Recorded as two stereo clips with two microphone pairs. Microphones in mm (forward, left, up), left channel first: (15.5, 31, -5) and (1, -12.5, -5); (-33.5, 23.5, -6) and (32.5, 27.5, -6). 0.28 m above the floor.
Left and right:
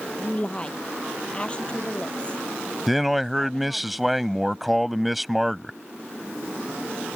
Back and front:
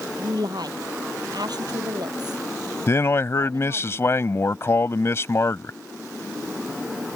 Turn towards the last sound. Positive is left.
turn(degrees=165)